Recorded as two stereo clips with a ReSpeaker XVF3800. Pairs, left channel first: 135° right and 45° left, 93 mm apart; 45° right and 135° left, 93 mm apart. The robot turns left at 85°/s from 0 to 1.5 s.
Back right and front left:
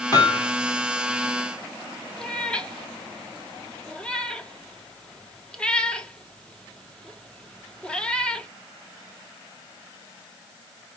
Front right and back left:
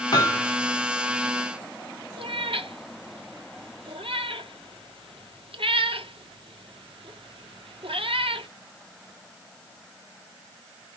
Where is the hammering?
80° right, 2.5 m; by 0.5 s 115° right, 2.5 m.